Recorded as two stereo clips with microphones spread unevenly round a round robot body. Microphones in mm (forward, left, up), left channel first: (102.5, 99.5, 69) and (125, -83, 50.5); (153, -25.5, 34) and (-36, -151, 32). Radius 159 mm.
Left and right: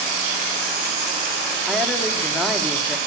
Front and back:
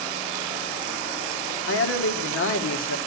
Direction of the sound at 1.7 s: 5° left.